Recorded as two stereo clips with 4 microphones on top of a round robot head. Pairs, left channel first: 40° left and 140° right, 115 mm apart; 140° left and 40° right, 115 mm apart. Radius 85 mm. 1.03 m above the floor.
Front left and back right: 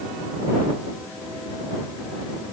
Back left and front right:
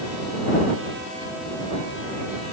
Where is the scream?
I don't hear a scream.